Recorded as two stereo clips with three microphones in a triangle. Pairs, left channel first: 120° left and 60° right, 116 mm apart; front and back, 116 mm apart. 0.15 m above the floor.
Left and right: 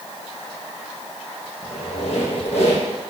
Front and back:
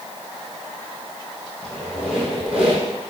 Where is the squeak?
95° left, 3.5 m.